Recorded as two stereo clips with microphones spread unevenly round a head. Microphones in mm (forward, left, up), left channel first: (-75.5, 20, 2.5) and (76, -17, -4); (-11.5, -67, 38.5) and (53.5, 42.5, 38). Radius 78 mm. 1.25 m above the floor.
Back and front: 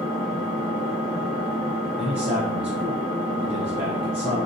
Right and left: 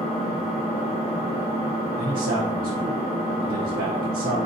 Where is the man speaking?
40° left, 0.6 m.